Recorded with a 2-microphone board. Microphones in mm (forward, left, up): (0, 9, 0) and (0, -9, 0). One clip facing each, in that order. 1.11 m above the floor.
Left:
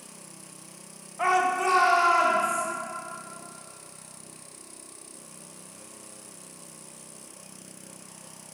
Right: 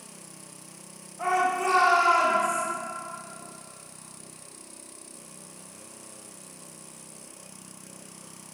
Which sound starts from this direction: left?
A shout, at 1.2 s.